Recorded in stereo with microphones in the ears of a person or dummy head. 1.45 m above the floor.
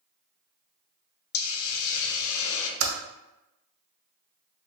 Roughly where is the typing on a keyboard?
Right.